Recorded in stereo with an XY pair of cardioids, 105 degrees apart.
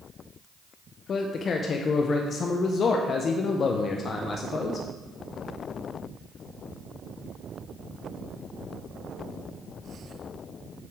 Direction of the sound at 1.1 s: 50° left.